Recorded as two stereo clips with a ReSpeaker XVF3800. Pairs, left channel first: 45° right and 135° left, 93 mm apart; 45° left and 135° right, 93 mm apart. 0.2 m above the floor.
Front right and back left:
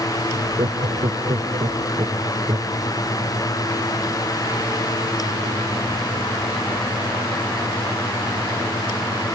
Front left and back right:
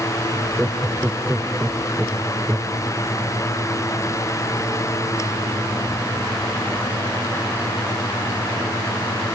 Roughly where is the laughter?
Behind left.